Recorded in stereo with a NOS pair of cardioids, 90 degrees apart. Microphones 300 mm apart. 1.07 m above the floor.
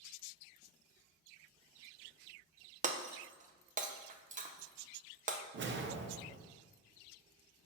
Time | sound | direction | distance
2.8 | breaking glass | 25° right | 0.6 m
5.5 | a whoosh | 40° right | 0.6 m